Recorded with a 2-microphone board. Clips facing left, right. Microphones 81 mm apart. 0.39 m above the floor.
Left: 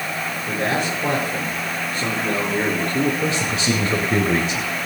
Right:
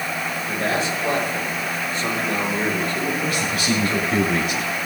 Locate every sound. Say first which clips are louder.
0.5 s a man speaking: left 1 dB; 60° left (ahead or behind), 8.5 m
3.2 s a man speaking: left 2 dB; 30° left (ahead or behind), 1.7 m